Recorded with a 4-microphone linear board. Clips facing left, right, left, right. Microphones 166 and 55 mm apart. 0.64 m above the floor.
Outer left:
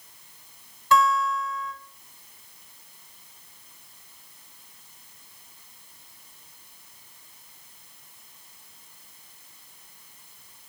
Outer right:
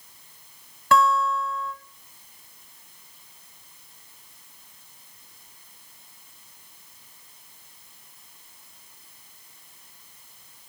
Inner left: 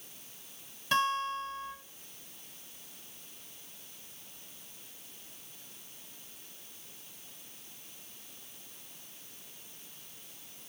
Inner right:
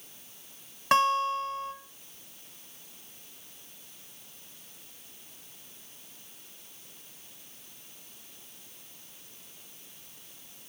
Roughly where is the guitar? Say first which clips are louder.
Outer right 2 dB, inner right 6 dB; right.